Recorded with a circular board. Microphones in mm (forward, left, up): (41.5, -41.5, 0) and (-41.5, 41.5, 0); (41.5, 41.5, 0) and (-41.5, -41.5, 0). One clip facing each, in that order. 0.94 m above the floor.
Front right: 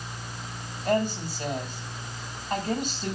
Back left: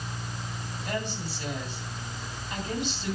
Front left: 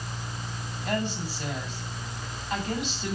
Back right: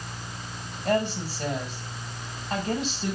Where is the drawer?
No drawer in this recording.